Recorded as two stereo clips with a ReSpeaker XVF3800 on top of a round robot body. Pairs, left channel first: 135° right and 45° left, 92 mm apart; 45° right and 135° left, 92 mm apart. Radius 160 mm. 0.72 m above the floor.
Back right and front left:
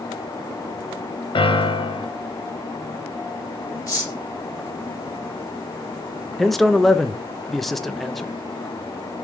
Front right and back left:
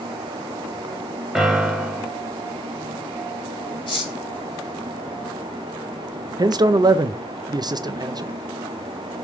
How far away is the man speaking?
About 0.5 m.